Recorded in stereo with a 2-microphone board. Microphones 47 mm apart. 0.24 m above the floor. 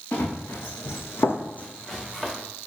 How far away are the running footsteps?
About 1.4 m.